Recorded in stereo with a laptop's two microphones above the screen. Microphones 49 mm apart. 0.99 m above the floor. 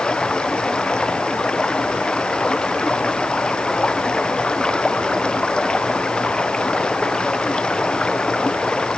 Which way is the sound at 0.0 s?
20° left (ahead or behind).